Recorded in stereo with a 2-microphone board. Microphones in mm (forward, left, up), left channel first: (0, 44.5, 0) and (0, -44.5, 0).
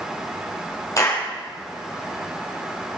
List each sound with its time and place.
1.0 s a clap: 40° left (ahead or behind), 4.5 m